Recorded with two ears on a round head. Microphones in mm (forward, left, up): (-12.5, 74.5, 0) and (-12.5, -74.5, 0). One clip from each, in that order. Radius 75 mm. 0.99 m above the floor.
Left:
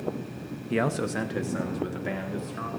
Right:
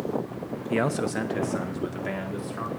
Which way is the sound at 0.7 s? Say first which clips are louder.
Right 1 dB; 10° right (ahead or behind).